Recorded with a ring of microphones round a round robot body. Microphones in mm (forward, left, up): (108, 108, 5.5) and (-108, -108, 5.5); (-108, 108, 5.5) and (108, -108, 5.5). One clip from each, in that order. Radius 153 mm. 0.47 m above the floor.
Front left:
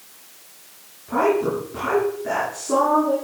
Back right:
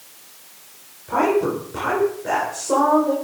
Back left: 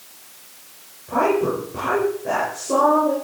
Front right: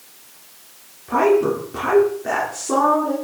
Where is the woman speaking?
55° right, 8 m.